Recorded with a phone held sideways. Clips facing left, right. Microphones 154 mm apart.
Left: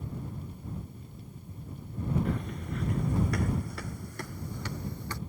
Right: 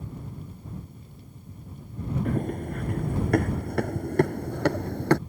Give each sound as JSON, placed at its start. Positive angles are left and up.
{"t": 2.2, "sound": "running footsteps", "side_deg": -50}